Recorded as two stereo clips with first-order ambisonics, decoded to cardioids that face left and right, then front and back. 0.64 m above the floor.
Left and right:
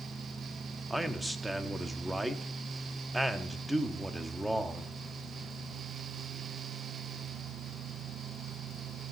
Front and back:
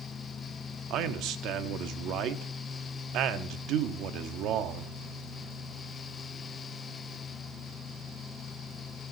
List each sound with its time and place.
0.9 s a man speaking: 175° right, 0.8 m